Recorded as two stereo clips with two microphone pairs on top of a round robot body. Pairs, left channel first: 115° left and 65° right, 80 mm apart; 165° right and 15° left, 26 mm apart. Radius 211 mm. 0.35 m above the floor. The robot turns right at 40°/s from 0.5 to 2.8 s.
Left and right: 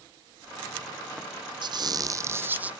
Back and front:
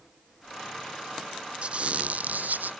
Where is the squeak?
30° right; by 2.7 s 10° left.